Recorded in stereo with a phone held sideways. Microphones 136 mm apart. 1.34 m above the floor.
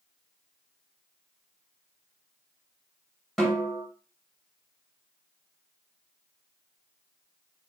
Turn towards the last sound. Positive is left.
turn(degrees=0)  # may be behind; listen again after turning